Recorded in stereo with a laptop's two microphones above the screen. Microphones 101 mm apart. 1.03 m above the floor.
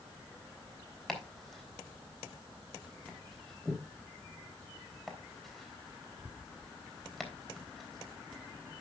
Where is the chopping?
Centre (ahead or behind), 3.5 m.